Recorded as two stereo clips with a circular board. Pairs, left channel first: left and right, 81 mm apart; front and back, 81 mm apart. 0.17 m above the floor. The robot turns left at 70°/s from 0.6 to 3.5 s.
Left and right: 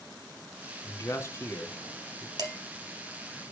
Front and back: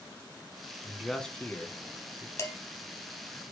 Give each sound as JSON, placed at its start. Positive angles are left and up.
{"t": 0.8, "sound": "a man speaking", "azimuth_deg": 100, "distance_m": 1.5}
{"t": 2.4, "sound": "dishes clattering", "azimuth_deg": -50, "distance_m": 3.0}